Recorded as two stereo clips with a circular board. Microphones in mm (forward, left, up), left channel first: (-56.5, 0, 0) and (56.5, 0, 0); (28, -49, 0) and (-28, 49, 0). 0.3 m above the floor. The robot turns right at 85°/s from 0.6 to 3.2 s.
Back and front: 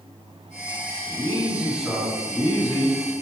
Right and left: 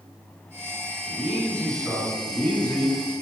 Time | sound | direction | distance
1.1 | a man speaking | 25° left | 1.5 m